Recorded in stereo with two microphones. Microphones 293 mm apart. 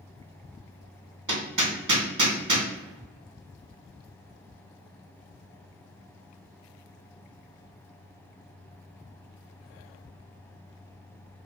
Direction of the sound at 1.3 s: 80° right.